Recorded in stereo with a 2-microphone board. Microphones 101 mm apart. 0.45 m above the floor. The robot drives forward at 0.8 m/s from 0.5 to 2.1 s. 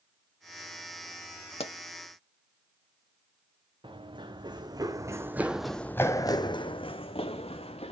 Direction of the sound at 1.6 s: 75° left (ahead or behind).